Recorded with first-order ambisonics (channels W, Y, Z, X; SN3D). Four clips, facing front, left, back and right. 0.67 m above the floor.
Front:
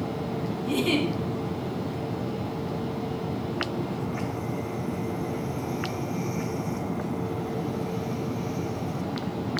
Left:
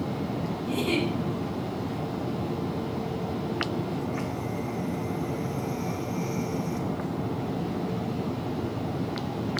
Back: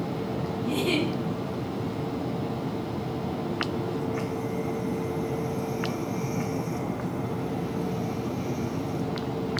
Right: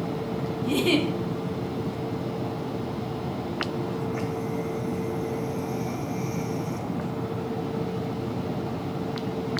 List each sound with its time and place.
0.6 s a giggle: 70° right, 1.4 m